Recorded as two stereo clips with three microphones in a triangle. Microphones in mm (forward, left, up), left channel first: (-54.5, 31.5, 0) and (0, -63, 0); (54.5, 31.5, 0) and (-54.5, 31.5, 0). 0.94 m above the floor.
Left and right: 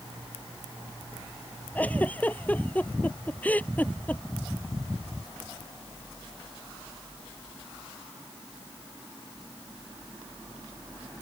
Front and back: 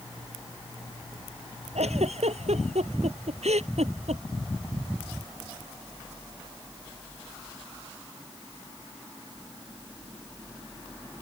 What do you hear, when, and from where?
1.8 s a giggle: 165° right